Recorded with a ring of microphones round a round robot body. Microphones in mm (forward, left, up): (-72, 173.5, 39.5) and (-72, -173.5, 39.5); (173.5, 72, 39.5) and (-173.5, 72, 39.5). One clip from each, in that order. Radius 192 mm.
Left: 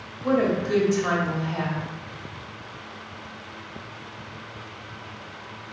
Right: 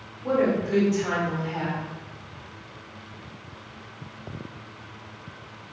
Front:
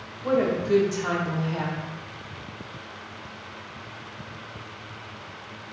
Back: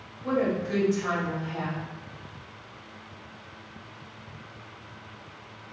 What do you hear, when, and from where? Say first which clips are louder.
0.2 s a woman speaking: left 1 dB, front 4 dB; 60° left, 1.9 m